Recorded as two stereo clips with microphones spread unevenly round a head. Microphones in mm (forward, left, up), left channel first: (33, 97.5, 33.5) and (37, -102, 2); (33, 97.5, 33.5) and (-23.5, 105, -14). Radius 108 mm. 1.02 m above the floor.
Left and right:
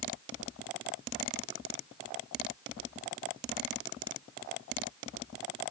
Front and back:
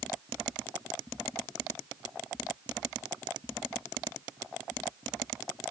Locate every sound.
Only background noise.